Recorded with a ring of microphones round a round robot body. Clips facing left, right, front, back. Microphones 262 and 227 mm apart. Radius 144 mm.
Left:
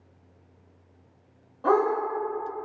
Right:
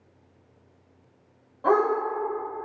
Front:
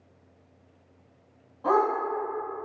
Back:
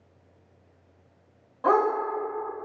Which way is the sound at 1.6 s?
165° left.